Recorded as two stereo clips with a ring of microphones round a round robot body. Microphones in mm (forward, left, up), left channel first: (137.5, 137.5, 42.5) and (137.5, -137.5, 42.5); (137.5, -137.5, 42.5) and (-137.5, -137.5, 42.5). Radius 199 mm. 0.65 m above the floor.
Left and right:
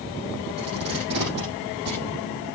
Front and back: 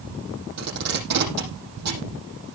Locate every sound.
0.6 s tape being pulled: 155° right, 7 m